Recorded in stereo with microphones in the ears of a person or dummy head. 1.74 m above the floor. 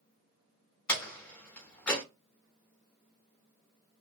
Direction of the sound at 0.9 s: 5° left (ahead or behind).